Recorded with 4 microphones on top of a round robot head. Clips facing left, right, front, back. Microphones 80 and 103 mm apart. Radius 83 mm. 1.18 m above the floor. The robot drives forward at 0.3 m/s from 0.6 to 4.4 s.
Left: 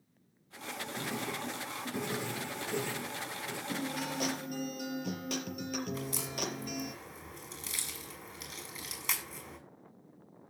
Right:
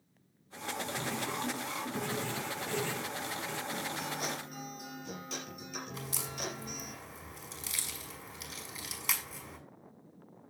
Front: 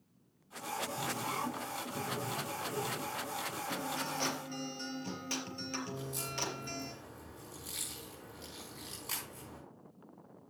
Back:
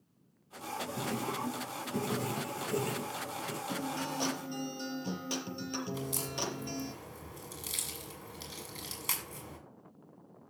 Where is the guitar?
110° left, 5 m.